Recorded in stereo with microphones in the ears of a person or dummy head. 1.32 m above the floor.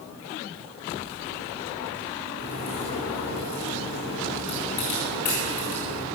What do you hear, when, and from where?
2.4 s a crack: 70° left (ahead or behind), 6 m